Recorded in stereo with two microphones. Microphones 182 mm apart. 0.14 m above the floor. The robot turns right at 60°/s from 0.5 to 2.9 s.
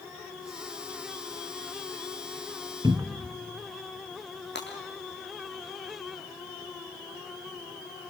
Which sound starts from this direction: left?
Breaking glass, at 4.5 s.